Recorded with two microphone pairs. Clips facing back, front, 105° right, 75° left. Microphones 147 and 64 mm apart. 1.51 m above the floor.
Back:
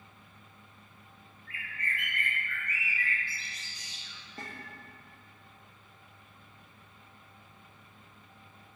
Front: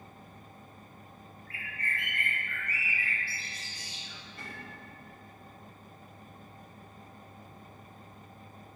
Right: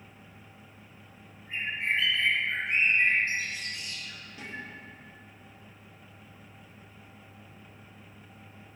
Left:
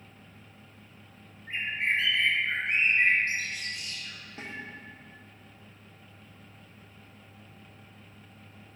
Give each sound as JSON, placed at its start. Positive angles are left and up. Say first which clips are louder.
{"t": 1.5, "sound": "a bird", "louder": "even, left 1 dB", "azimuth_deg": 45, "distance_m": 2.5}
{"t": 4.4, "sound": "a snare drum", "louder": "back 3 dB, left 2 dB", "azimuth_deg": 135, "distance_m": 1.6}